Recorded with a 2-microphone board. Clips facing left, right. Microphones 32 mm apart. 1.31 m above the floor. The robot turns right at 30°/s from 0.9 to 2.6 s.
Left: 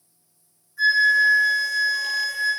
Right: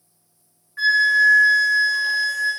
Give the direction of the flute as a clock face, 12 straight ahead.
2 o'clock.